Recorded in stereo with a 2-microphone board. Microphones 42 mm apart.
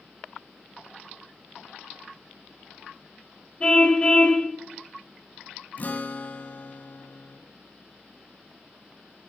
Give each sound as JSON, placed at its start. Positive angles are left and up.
{"t": 3.6, "sound": "a car horn", "side_deg": 20, "distance_m": 2.0}
{"t": 5.8, "sound": "a guitar", "side_deg": 45, "distance_m": 1.2}